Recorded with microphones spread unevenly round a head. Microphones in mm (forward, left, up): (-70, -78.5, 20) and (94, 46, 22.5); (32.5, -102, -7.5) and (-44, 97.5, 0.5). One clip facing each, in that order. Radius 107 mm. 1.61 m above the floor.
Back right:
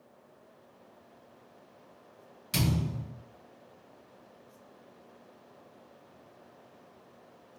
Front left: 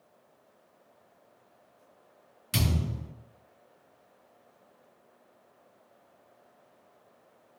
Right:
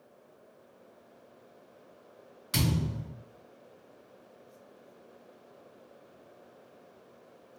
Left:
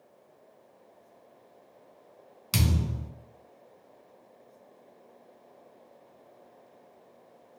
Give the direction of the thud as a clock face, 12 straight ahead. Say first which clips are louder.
Back right 1 dB, even; 8 o'clock.